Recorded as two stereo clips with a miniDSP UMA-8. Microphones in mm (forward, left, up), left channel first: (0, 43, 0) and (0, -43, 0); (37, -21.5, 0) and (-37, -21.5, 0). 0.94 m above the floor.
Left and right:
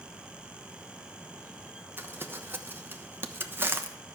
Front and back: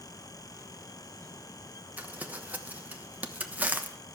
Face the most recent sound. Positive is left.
turn(degrees=-130)